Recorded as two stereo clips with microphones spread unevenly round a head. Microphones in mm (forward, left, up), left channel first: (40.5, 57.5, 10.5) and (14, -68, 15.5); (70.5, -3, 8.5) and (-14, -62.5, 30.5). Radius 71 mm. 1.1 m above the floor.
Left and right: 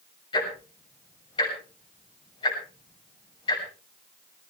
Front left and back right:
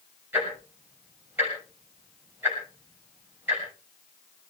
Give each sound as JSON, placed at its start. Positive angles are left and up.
{"t": 0.3, "sound": "ticking", "azimuth_deg": 140, "distance_m": 6.5}